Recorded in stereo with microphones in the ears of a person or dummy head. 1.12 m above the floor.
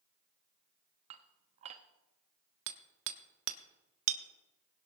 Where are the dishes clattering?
35° right (ahead or behind), 0.9 m.